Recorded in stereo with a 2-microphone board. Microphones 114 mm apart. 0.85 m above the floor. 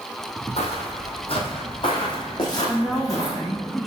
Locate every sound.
0.6 s footsteps: 60° left (ahead or behind), 1.6 m; by 3.4 s 30° left (ahead or behind), 2.5 m
2.7 s a woman speaking: centre (ahead or behind), 0.6 m